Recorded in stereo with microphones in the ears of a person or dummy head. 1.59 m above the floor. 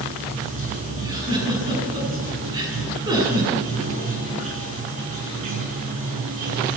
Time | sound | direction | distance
0.0 | running water | 40° right (ahead or behind) | 4.5 m
1.0 | a giggle | 25° right (ahead or behind) | 9 m